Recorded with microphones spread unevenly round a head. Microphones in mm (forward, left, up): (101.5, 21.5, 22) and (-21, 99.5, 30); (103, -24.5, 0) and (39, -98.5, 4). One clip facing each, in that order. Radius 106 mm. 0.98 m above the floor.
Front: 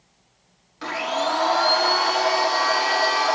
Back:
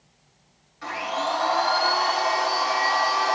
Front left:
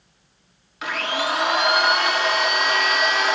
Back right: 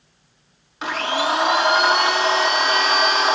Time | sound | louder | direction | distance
0.8 | a blender | front 3 dB, back right 3 dB | 70° right | 0.9 m